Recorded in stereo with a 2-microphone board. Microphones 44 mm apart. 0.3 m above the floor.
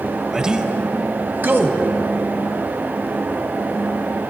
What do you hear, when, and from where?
0.3 s a man speaking: 15° right (ahead or behind), 1.1 m; by 1.8 s 60° right (ahead or behind), 1.8 m